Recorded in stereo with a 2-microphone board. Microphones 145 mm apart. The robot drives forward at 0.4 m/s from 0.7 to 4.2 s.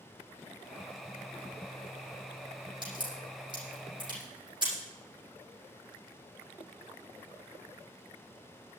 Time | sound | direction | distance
2.8 | a crack | 30° right (ahead or behind) | 9.5 m